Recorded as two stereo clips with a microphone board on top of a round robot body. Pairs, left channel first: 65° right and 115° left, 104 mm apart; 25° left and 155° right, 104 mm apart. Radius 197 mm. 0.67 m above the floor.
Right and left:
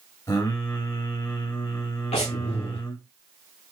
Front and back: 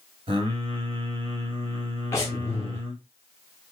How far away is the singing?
About 1.7 m.